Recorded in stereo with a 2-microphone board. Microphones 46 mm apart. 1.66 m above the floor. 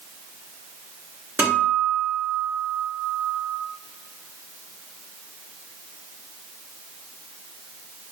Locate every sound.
1.4 s a guitar: 55° right (ahead or behind), 3.5 m